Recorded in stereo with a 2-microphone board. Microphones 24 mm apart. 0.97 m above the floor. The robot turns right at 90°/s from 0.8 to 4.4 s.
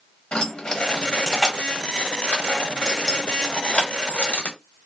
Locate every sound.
0.3 s keys jangling: 35° left (ahead or behind), 1.2 m; by 4.6 s 70° left (ahead or behind), 1.2 m